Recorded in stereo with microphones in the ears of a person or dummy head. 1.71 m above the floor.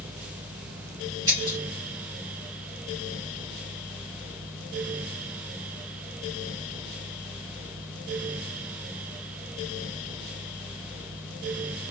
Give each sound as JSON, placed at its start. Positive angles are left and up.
{"t": 1.3, "sound": "breaking glass", "side_deg": -15, "distance_m": 3.5}